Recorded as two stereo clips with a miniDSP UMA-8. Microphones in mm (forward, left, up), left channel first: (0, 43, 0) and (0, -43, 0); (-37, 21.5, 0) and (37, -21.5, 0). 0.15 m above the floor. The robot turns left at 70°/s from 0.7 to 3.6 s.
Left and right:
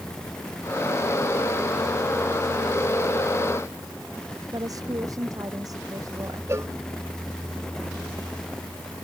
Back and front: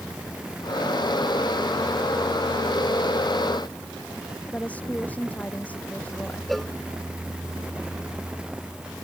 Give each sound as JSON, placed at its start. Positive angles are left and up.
{"t": 4.5, "sound": "a woman speaking", "azimuth_deg": -135}
{"t": 6.5, "sound": "a cowbell", "azimuth_deg": -125}